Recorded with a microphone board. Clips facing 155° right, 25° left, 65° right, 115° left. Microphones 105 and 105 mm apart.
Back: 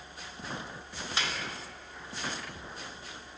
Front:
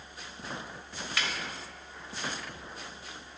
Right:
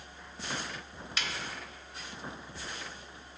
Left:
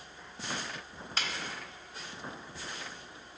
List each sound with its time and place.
1.2 s a snare drum: 145° left, 0.9 m